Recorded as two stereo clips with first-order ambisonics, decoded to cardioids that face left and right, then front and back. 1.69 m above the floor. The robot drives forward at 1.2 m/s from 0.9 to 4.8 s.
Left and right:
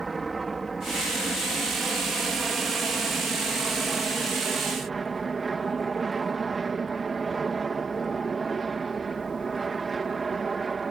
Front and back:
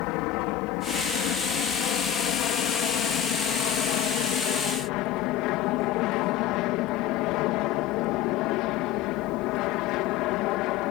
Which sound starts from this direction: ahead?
An aircraft, at 0.0 s.